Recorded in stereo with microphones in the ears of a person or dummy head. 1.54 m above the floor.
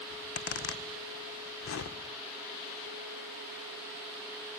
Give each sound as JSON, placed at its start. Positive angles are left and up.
{"t": 0.1, "sound": "a zipper", "side_deg": 65, "distance_m": 2.0}